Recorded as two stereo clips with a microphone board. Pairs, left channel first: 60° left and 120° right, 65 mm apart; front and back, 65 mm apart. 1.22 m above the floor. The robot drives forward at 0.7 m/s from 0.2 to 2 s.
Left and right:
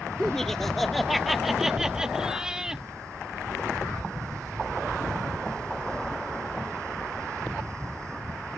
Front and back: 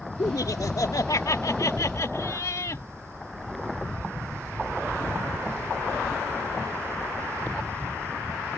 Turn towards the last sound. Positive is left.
turn(degrees=-40)